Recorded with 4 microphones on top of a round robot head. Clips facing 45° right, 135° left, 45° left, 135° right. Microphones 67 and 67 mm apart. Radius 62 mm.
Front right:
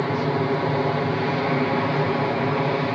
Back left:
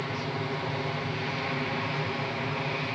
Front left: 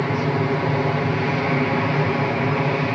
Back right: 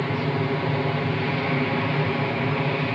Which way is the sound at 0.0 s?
20° right.